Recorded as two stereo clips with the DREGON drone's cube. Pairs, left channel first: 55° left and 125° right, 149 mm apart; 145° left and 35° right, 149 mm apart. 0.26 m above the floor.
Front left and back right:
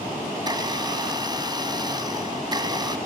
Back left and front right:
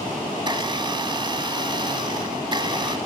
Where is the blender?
75° right, 1.0 m.